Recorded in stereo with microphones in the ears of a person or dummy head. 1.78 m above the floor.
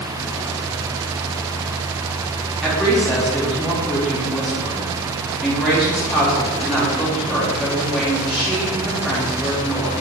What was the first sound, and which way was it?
A woman speaking, centre (ahead or behind).